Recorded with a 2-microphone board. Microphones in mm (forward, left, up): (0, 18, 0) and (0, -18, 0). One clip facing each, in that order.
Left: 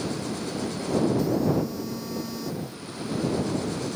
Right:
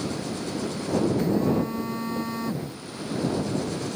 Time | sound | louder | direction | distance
1.2 | a phone buzzing | right 1 dB | 40° right (ahead or behind) | ?